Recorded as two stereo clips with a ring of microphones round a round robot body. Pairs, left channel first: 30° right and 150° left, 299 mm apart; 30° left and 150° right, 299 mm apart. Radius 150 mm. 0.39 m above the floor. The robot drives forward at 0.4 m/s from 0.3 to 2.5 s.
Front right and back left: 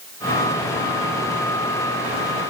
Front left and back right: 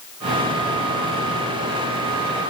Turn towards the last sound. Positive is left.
No sound to turn to.